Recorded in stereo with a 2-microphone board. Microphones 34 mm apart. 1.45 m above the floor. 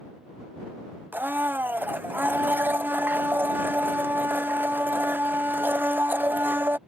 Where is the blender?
75° right (ahead or behind).